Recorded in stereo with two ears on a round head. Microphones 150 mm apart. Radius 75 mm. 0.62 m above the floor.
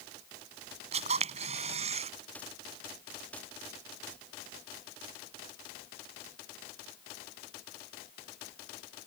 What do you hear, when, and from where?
0.9 s a camera shutter: 40° right (ahead or behind)